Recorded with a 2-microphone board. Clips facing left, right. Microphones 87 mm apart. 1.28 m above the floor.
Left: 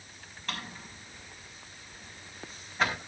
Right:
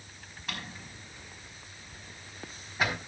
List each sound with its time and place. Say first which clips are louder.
0.5 s a drawer: left 2 dB; 10° right (ahead or behind), 4.5 m